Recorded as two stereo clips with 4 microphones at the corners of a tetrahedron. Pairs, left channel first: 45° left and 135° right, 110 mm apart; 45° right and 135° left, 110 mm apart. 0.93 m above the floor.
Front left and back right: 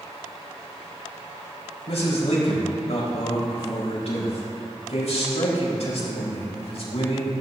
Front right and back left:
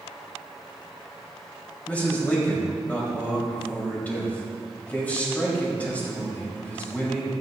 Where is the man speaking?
30° left, 4 m.